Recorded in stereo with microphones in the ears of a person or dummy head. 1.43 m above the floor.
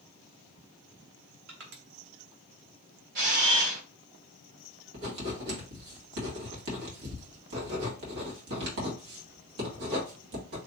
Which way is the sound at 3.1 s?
55° right (ahead or behind).